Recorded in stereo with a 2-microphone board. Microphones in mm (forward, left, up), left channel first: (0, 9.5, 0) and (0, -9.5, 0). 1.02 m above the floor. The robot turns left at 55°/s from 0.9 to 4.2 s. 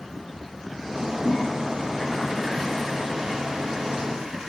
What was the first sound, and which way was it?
A toilet flushing, 85° left.